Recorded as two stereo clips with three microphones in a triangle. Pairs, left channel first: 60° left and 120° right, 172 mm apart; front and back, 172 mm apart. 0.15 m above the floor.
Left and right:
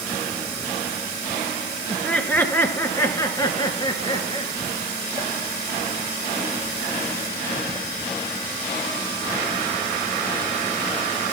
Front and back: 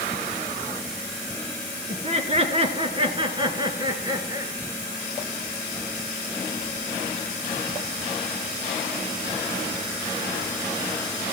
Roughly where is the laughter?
Behind left.